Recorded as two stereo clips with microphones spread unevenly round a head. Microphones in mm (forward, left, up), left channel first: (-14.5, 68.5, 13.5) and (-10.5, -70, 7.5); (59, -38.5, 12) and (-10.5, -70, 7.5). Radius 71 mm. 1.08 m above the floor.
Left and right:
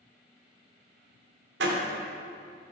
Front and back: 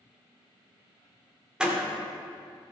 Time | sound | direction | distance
1.6 | a door slam | 75° right | 2.5 m